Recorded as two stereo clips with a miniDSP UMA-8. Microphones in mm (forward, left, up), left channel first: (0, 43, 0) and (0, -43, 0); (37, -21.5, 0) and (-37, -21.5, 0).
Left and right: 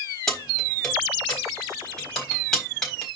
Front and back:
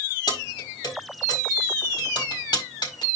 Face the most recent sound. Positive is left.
turn(degrees=5)